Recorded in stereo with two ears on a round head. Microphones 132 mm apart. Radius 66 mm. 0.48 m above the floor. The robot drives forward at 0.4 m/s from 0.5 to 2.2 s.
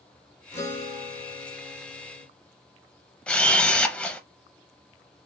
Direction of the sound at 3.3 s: 5° left (ahead or behind).